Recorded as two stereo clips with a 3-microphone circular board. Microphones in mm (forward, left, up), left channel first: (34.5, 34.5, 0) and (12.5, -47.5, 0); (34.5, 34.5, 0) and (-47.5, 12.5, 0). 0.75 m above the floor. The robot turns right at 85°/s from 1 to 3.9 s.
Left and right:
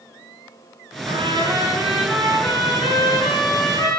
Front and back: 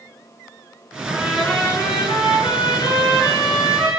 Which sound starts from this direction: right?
A trumpet, at 1.1 s.